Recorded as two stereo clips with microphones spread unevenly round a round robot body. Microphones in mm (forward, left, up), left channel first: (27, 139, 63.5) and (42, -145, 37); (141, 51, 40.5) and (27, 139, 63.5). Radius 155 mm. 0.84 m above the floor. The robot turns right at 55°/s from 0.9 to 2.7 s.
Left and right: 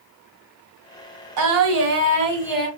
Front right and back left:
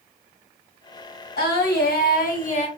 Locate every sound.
1.4 s singing: 65° right, 1.6 m; by 2.7 s 10° left, 1.6 m